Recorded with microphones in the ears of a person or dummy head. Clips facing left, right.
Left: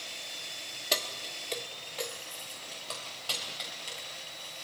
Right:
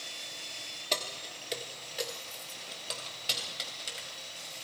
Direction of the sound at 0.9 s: 5° left (ahead or behind).